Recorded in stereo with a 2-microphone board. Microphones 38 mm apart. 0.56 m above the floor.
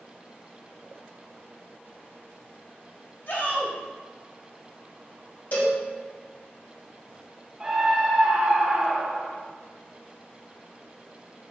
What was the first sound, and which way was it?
A shout, 60° left (ahead or behind).